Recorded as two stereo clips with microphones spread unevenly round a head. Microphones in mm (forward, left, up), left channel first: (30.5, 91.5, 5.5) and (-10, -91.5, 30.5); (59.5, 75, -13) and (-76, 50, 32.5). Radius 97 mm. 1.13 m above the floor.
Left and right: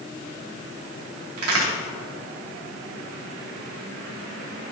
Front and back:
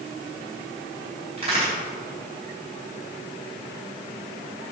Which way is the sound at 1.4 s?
105° right.